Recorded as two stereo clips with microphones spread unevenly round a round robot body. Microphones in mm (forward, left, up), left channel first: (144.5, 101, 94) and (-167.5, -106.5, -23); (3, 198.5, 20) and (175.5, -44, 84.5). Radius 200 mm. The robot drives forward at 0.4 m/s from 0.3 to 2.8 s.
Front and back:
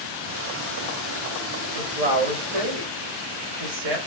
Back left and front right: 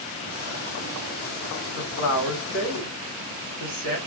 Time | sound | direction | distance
1.8 | a woman speaking | 165° left | 2.5 m